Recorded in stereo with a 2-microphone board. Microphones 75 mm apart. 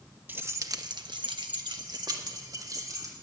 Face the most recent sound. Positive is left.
turn(degrees=-50)  # may be behind; listen again after turning